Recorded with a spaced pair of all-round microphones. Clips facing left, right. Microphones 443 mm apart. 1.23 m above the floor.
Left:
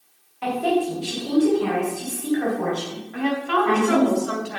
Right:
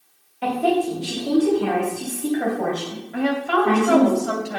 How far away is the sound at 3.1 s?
About 2.5 m.